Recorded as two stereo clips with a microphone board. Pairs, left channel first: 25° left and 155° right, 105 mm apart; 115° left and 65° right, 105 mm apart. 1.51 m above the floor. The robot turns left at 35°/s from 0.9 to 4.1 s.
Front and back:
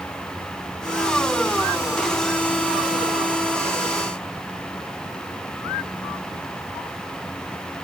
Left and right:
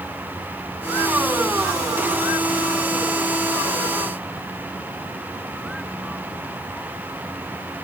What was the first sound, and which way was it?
Only background noise.